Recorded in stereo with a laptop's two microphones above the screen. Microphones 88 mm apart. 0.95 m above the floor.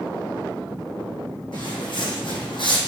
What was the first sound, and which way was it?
Footsteps, 60° left (ahead or behind).